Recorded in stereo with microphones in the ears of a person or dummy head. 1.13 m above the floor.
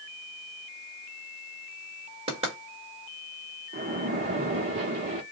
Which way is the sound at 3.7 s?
30° right (ahead or behind).